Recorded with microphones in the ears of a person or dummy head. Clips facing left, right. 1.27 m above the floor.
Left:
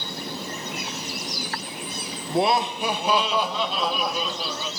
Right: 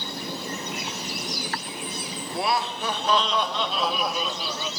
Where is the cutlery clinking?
No cutlery clinking in this recording.